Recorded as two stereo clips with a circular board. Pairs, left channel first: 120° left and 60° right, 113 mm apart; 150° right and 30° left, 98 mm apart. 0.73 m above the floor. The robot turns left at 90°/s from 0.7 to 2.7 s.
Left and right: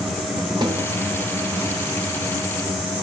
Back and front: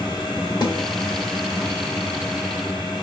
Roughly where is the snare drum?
Right.